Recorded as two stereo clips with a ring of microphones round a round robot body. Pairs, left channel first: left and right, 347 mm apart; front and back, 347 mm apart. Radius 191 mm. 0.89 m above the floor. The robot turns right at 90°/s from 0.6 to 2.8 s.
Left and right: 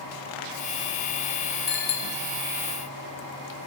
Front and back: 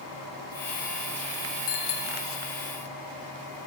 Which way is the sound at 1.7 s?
25° left.